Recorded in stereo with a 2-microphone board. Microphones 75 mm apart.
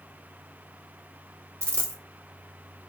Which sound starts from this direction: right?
A dropped coin, at 1.6 s.